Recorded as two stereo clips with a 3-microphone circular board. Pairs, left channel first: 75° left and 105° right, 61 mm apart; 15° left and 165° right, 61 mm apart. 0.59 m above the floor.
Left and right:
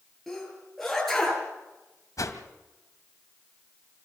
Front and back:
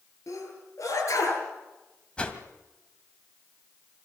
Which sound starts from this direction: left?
A whoosh, at 2.2 s.